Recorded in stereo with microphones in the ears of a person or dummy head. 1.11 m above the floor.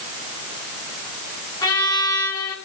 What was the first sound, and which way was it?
A trumpet, 20° left (ahead or behind).